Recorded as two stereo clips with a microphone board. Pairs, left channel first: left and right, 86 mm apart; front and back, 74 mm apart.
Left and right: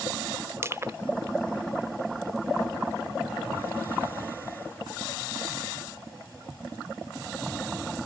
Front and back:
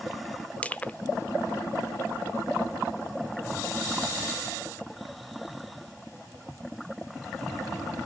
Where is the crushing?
60° right, 0.6 m.